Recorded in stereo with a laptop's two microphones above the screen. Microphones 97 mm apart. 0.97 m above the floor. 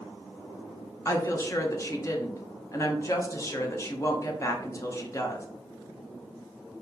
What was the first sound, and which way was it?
A woman speaking, 30° left (ahead or behind).